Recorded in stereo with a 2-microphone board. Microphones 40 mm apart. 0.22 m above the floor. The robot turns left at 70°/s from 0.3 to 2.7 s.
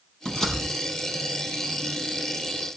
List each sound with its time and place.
0.2 s a door slam: 20° left (ahead or behind), 5 m; by 0.6 s centre (ahead or behind), 5 m